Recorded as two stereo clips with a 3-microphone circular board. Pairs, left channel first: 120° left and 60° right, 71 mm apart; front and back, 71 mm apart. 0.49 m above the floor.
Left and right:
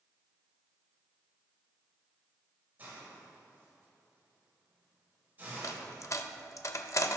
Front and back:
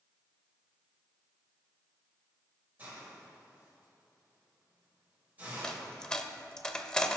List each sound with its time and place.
2.8 s a hiss: 120° right, 3 m
5.6 s a dropped coin: 80° left, 0.5 m